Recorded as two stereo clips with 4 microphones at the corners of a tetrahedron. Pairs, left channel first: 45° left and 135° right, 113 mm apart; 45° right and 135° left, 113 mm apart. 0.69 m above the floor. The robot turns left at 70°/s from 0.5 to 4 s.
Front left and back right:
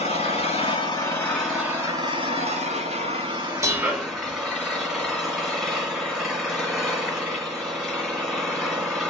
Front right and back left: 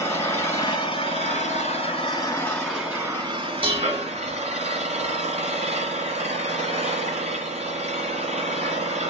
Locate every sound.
0.0 s an engine running: 20° left, 2 m; by 9.1 s 135° left, 2 m
3.6 s dishes clattering: 165° left, 0.9 m; by 4.1 s 140° left, 0.9 m